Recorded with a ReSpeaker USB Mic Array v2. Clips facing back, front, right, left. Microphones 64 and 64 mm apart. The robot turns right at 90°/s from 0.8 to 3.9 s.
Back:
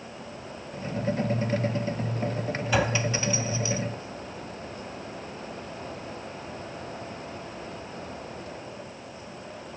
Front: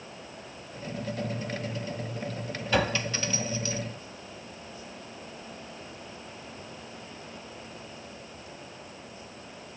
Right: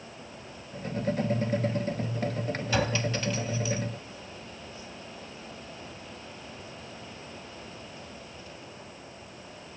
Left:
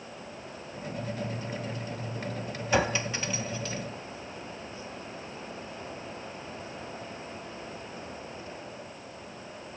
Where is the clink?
115° left, 0.8 m; by 3.8 s 150° right, 0.8 m.